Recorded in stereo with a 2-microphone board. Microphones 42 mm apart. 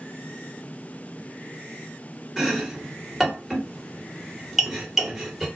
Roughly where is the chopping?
Centre.